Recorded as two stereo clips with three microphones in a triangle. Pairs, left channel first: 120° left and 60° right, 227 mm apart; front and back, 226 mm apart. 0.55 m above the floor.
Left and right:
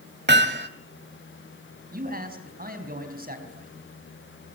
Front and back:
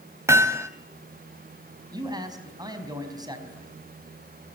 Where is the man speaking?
110° right, 4.5 m.